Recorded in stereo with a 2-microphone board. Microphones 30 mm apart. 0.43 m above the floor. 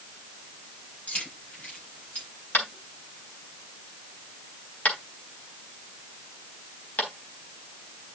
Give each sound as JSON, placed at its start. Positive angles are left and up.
{"t": 1.1, "sound": "keys jangling", "side_deg": 45, "distance_m": 7.5}
{"t": 2.5, "sound": "tapping", "side_deg": 70, "distance_m": 3.5}